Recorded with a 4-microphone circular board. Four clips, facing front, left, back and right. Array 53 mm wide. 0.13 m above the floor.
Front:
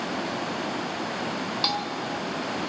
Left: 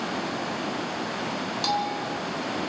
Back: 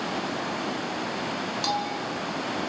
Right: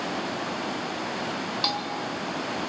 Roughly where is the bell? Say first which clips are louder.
Left 3 dB, back 1 dB; ahead right.